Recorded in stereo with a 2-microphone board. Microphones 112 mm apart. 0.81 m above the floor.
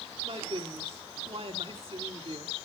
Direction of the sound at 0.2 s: 60° right (ahead or behind).